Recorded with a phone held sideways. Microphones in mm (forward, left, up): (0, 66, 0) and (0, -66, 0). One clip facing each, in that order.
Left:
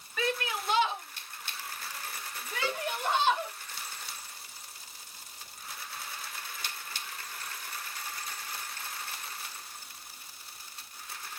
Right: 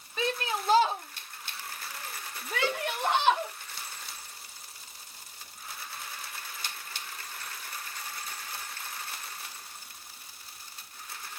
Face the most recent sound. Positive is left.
turn(degrees=-15)  # may be behind; listen again after turning